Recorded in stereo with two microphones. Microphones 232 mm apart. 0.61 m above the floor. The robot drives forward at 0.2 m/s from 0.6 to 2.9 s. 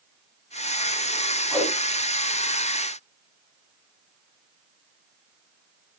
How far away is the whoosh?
About 2.5 m.